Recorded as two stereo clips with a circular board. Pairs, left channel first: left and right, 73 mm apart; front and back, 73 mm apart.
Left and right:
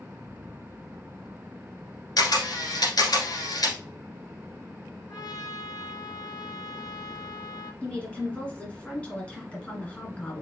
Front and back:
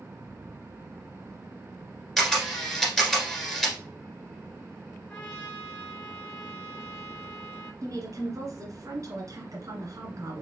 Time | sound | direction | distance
2.2 | a camera shutter | 85° left | 1.8 m
5.1 | a trumpet | 75° left | 3 m
7.8 | a woman speaking | 165° left | 1.9 m